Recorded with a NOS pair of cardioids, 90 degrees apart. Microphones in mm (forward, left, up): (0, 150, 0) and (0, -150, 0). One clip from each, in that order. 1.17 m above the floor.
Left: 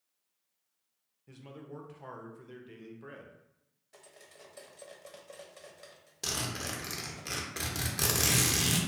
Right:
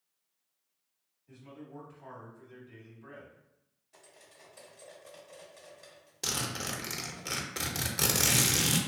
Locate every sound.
1.3 s a man speaking: 65° left, 0.8 m
3.9 s cutlery clinking: 25° left, 0.7 m
6.2 s a zipper: 10° right, 0.5 m